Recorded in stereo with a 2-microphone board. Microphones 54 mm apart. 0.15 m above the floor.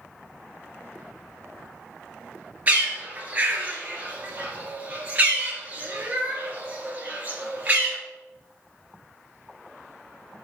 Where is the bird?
30° right (ahead or behind), 1.5 m.